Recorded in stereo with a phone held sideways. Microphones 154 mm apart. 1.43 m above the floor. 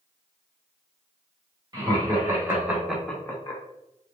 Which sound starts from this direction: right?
Laughter, at 1.7 s.